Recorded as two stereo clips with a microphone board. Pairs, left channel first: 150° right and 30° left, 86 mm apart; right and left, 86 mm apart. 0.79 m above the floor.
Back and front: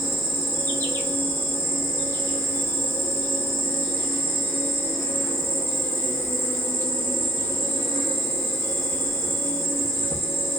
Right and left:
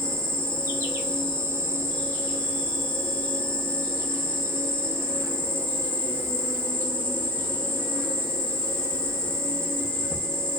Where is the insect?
155° left, 0.8 m.